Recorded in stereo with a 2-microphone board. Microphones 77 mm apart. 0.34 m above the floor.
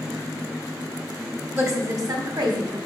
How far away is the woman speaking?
About 1.6 m.